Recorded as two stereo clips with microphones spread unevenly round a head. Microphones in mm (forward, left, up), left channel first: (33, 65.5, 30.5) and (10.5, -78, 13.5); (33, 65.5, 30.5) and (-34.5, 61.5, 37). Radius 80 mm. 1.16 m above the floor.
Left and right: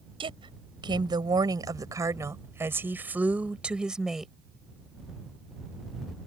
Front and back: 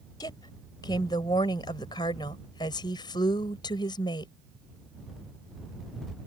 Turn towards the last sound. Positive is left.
turn(degrees=-10)